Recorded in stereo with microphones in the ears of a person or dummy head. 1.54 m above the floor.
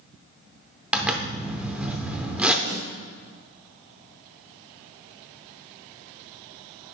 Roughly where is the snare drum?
Right.